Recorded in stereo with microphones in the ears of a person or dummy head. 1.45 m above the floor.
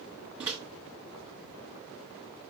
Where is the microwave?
Centre (ahead or behind), 2.5 m.